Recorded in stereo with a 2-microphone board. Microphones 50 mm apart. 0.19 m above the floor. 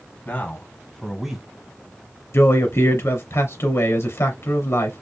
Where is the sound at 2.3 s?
65° left (ahead or behind), 2 m.